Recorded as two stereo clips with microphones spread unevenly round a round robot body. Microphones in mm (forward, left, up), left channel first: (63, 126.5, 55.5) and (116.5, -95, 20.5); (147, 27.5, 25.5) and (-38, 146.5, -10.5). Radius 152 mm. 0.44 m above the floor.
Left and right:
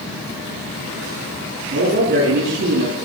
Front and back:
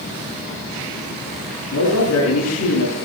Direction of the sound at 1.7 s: 50° right.